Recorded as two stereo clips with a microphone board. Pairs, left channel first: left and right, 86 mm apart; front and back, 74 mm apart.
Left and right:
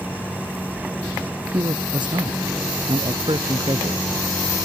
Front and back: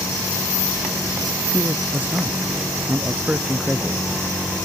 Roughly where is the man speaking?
Behind right.